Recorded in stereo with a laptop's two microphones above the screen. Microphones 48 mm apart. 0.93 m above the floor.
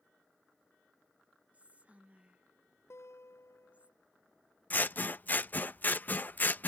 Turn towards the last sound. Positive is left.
turn(degrees=40)  # may be behind; listen again after turning